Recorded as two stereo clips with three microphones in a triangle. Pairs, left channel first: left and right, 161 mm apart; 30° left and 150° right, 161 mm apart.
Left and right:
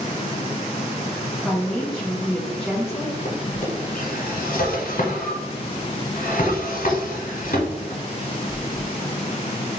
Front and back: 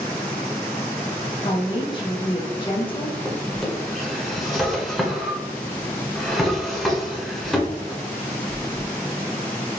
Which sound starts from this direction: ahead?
A woman speaking, at 1.4 s.